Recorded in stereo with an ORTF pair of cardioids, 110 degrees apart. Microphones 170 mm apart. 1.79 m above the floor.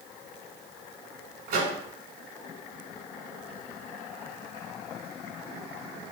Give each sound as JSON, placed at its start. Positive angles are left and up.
{"t": 1.5, "sound": "a microwave", "azimuth_deg": -60, "distance_m": 1.7}